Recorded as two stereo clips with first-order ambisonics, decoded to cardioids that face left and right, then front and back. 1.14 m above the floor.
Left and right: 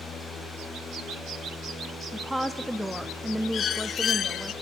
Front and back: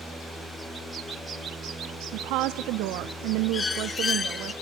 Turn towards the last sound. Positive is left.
turn(degrees=55)